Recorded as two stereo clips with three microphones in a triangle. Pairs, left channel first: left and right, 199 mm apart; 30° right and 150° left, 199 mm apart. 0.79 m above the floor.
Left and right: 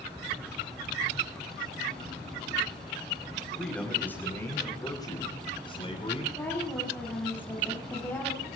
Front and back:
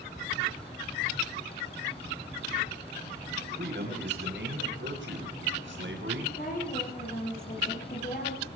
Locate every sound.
3.6 s a man speaking: 175° left, 4 m; by 6.3 s 150° left, 5 m
6.4 s a woman speaking: 10° left, 7 m